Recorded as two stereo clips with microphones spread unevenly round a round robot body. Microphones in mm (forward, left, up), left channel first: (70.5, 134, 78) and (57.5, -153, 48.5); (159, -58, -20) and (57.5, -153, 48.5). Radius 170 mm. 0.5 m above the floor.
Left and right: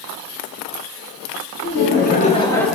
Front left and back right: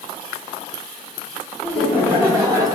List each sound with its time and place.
1.6 s laughter: 105° left, 0.9 m; by 2.8 s 55° right, 0.7 m